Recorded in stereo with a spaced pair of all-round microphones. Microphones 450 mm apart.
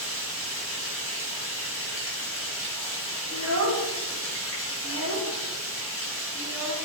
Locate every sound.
0.0 s running water: 30° left (ahead or behind), 1.5 m
3.3 s a child speaking: 35° right (ahead or behind), 0.7 m